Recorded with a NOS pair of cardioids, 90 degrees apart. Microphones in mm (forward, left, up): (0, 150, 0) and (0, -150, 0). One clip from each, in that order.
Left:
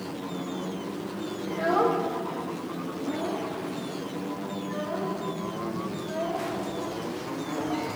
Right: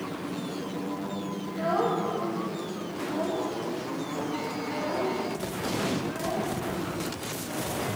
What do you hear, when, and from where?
1.5 s a child speaking: 30° left, 1.3 m; by 7.9 s 5° right, 7 m